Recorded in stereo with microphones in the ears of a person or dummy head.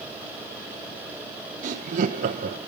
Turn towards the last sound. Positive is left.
turn(degrees=-45)  # may be behind; listen again after turning